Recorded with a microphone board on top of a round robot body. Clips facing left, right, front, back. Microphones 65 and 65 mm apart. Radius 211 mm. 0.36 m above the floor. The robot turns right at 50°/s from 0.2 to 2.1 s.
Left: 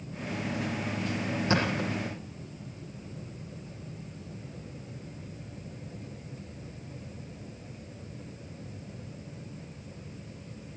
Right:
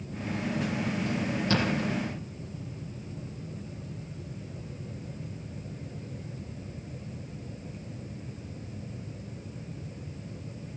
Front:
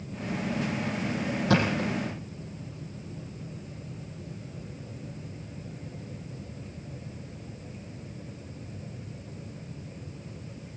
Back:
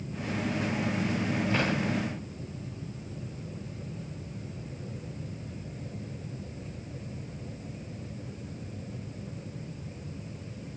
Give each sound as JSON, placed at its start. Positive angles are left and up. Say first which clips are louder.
{"t": 1.5, "sound": "a thud", "louder": "even, front 6 dB", "azimuth_deg": 25, "distance_m": 6.5}